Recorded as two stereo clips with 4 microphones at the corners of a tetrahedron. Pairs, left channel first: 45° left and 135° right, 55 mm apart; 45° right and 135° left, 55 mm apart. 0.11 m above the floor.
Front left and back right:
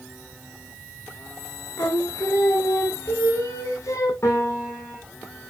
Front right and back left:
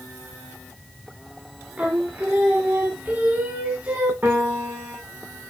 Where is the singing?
70° left, 6 m.